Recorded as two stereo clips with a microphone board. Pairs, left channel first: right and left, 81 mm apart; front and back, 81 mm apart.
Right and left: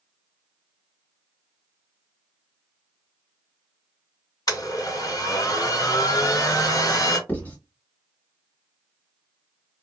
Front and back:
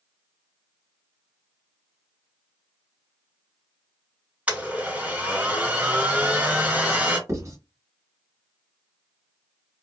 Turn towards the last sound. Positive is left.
turn(degrees=-155)